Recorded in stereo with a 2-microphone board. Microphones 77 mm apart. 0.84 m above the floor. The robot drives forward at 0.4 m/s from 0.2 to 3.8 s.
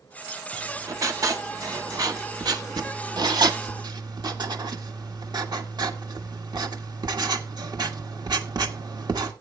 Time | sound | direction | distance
0.5 | writing | 45° right (ahead or behind) | 1.9 m